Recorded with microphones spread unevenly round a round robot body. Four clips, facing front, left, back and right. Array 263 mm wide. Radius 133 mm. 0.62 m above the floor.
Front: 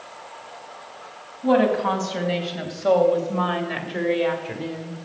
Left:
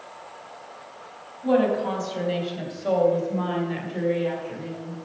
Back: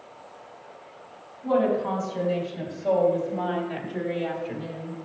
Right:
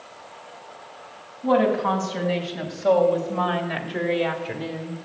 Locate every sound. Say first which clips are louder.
1.4 s a woman speaking: right 1 dB, front 4 dB; 15° right, 4 m; by 5.0 s 55° right, 2 m